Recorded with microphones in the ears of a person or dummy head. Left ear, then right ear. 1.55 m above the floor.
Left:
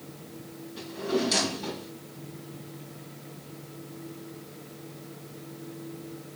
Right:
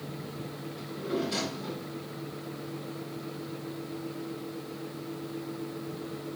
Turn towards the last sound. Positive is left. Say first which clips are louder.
# left 4 dB
turn(degrees=60)  # may be behind; listen again after turning